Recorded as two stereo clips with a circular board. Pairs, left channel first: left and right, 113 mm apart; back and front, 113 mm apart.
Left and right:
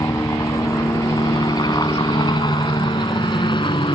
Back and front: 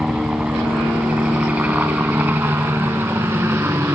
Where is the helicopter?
80° left; by 4.0 s 65° left.